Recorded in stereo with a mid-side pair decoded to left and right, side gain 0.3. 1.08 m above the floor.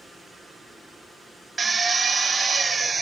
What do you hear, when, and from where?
1.6 s a drill: 45° right, 0.6 m